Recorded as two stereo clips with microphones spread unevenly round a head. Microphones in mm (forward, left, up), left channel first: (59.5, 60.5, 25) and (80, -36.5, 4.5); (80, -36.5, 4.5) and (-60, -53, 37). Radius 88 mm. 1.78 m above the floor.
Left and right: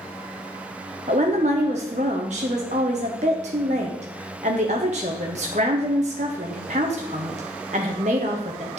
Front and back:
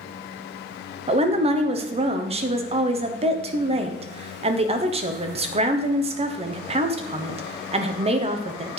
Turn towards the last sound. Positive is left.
turn(degrees=-130)